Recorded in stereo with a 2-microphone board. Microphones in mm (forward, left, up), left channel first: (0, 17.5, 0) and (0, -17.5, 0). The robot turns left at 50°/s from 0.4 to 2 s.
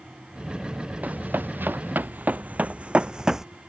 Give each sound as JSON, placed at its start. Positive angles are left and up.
{"t": 1.0, "sound": "running footsteps", "side_deg": -55}